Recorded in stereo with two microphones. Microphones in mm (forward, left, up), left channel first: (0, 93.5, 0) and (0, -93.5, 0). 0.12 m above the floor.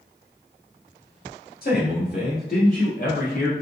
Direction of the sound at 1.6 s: 55° left (ahead or behind).